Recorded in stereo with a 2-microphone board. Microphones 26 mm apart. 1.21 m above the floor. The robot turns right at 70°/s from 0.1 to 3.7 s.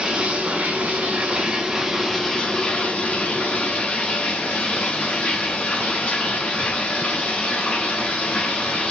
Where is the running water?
140° right, 2.5 m; by 8.9 s 115° left, 2.5 m.